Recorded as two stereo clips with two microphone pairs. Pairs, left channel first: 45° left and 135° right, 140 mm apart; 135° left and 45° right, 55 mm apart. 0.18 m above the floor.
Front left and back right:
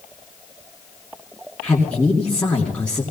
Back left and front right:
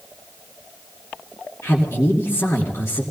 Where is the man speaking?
125° left, 3 m.